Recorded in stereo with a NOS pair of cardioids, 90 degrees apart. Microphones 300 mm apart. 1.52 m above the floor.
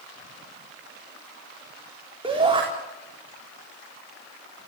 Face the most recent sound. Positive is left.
turn(degrees=-15)